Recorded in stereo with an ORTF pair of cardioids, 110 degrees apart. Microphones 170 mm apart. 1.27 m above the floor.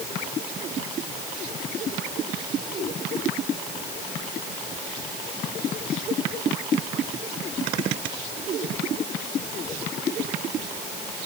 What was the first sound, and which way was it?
Only background noise.